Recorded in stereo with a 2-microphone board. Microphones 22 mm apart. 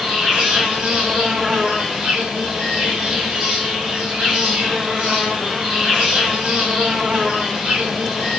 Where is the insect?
35° right (ahead or behind), 8 m.